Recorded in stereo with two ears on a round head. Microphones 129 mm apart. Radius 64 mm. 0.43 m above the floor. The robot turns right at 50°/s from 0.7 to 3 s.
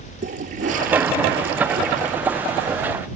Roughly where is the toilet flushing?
Behind right.